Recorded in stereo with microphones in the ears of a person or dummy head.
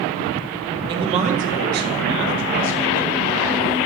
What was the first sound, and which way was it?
A man speaking, 25° right (ahead or behind).